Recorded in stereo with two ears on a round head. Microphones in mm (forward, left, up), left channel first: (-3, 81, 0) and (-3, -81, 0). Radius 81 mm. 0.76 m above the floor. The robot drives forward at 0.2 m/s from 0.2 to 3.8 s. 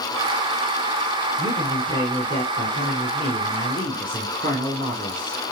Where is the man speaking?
25° left (ahead or behind), 3 m; by 5.4 s 30° left (ahead or behind), 2.5 m.